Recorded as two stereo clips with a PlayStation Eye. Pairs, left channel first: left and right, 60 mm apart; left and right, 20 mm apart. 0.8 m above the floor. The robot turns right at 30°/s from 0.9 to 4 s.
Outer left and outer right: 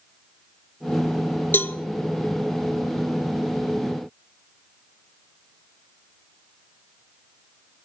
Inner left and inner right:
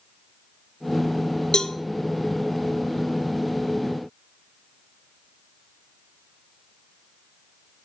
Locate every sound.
1.5 s a cowbell: 40° left (ahead or behind), 0.6 m; by 1.8 s 30° left (ahead or behind), 0.6 m